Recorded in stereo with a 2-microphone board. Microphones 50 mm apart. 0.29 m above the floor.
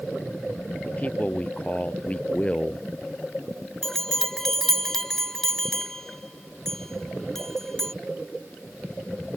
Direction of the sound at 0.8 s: 30° left (ahead or behind).